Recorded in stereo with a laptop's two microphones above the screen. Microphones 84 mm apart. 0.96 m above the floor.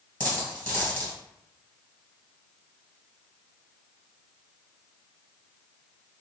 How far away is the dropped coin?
About 1.8 m.